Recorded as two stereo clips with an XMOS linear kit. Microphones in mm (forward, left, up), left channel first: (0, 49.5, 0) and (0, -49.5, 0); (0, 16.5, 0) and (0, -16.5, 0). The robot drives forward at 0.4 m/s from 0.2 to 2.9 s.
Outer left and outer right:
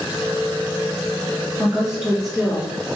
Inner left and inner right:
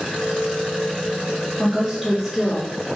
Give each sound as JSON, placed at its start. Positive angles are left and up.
{"t": 1.6, "sound": "a woman speaking", "side_deg": -5, "distance_m": 1.9}